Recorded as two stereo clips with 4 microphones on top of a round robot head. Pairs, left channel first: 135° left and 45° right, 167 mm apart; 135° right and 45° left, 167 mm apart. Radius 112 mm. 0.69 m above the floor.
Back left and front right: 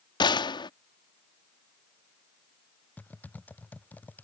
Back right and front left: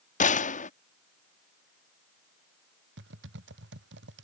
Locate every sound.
0.2 s a gunshot: 165° right
3.0 s typing on a keyboard: 55° left